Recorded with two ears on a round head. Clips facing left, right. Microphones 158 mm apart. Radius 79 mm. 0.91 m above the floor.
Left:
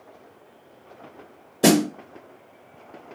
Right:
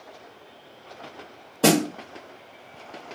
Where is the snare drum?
15° left (ahead or behind), 1.5 m.